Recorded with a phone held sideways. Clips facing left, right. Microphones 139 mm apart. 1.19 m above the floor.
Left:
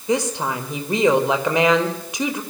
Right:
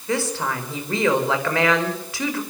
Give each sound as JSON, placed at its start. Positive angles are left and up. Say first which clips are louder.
{"t": 0.1, "sound": "a woman speaking", "louder": "left 3 dB", "side_deg": 20, "distance_m": 5.0}